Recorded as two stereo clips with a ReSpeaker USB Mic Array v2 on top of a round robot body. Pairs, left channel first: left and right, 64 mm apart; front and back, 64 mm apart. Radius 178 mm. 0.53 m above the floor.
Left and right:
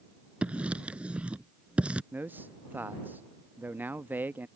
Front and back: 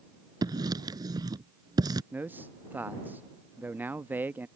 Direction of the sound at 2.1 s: 135° right.